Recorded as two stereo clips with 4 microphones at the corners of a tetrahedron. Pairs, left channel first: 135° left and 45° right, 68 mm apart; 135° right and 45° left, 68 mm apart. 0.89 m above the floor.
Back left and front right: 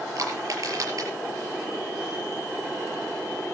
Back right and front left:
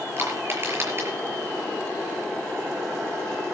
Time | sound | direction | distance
0.2 | crushing | 10° right | 6 m